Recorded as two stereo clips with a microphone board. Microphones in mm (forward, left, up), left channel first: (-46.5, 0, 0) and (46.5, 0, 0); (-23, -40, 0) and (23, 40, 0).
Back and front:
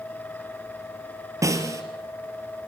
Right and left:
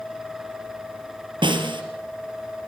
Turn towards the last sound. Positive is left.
turn(degrees=50)